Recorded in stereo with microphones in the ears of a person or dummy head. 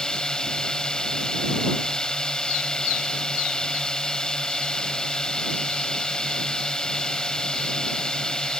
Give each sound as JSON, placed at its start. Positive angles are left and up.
{"t": 0.0, "sound": "a drone", "side_deg": 0}